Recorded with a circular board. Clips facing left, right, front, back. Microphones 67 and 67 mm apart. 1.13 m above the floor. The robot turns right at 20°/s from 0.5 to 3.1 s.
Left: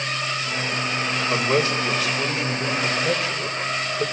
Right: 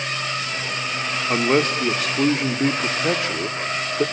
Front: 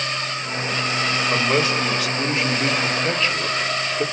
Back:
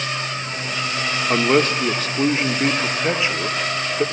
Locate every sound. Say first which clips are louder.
1.3 s a man speaking: right 3 dB, back 5 dB; 140° right, 2.5 m; by 4.0 s 105° right, 2.5 m